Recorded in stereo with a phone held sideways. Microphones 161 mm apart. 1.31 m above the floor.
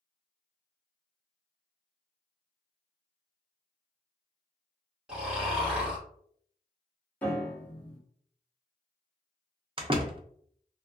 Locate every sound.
5.1 s snoring: 5° right (ahead or behind), 1.7 m
7.2 s a piano: 10° left (ahead or behind), 1.1 m
9.8 s a door slam: 35° right (ahead or behind), 0.5 m